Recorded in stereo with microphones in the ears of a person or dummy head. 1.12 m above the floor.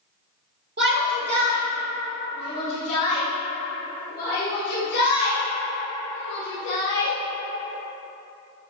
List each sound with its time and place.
0.8 s a shout: 50° right (ahead or behind), 1.8 m; by 7.1 s 65° left (ahead or behind), 7 m